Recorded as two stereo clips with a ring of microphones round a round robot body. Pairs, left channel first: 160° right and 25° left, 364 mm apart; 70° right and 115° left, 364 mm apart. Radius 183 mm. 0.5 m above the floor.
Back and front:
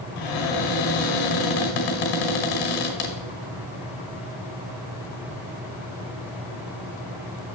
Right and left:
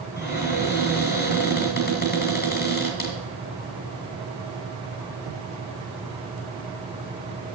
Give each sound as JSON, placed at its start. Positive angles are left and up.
{"t": 0.2, "sound": "a cupboard door", "azimuth_deg": -135, "distance_m": 1.9}